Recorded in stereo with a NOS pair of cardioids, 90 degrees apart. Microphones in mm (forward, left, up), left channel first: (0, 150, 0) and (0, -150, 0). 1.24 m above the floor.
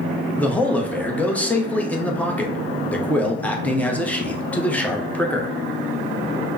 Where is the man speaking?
5° left, 0.7 m.